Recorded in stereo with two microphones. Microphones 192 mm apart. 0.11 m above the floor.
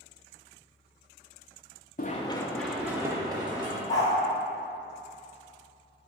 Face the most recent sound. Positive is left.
turn(degrees=15)  # may be behind; listen again after turning